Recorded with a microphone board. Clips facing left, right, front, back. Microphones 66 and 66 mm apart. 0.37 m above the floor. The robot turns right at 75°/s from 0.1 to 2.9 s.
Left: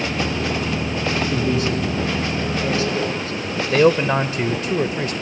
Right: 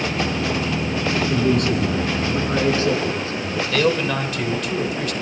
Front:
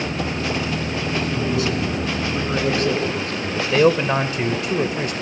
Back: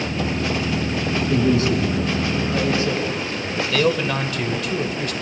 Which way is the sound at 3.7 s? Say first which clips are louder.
Left 5 dB, front 4 dB; 50° left.